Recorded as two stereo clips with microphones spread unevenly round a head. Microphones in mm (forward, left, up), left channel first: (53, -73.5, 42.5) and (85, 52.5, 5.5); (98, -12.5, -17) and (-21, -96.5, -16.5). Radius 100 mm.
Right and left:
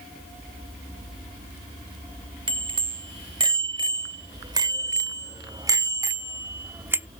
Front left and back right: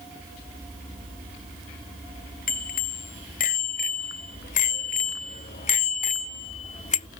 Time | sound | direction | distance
2.5 | a bicycle bell | 20° left | ?